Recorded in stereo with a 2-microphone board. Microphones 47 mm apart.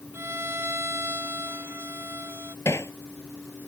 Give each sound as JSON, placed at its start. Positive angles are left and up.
{"t": 0.1, "sound": "a violin", "side_deg": -60}
{"t": 2.6, "sound": "hammering", "side_deg": 75}